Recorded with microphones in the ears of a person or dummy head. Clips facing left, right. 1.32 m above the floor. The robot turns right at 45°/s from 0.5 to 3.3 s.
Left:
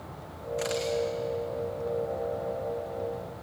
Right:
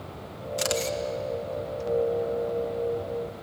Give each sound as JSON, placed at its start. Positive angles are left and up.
{"t": 0.6, "sound": "a camera shutter", "side_deg": -45, "distance_m": 1.9}